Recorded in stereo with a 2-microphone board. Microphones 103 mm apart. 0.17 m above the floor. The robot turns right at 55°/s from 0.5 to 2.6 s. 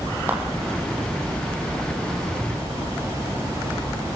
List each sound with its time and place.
0.3 s a clap: 20° right (ahead or behind), 7.5 m